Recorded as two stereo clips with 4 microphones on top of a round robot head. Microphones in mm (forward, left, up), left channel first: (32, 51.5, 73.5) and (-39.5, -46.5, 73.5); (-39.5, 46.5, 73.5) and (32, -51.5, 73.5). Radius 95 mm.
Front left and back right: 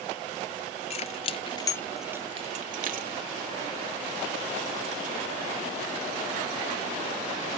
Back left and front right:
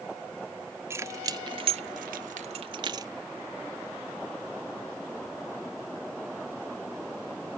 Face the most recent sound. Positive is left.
turn(degrees=-115)